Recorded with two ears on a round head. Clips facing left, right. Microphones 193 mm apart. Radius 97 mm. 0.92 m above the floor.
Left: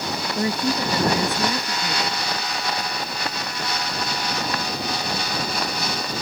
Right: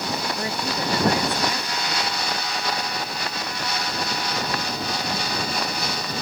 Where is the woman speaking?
90° left.